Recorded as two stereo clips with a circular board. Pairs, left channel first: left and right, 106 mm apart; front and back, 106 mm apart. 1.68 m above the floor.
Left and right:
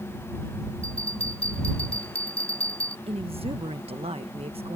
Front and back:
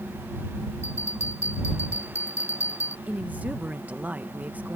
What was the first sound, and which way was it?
A bell, 65° left.